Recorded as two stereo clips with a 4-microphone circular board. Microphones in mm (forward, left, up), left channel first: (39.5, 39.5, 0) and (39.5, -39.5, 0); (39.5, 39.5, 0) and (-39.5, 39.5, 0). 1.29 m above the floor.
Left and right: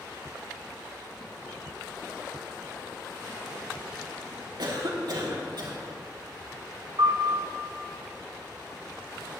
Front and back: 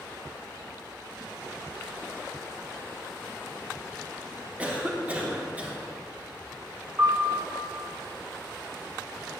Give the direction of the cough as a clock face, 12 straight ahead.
4 o'clock.